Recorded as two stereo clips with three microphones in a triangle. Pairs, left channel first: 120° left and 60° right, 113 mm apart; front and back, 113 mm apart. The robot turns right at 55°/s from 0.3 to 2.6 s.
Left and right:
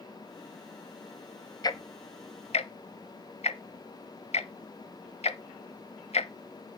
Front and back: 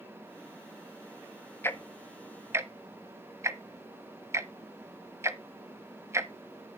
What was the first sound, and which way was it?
Ticking, 65° left.